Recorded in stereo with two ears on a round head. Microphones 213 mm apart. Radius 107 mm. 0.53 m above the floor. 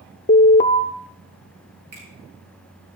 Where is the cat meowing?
I don't hear a cat meowing.